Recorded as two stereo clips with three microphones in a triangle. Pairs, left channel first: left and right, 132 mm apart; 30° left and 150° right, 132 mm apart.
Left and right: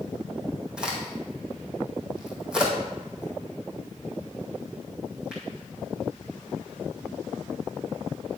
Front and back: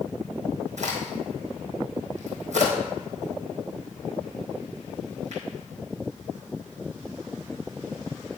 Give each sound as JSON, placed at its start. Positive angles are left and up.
{"t": 0.8, "sound": "a crack", "azimuth_deg": -175, "distance_m": 2.0}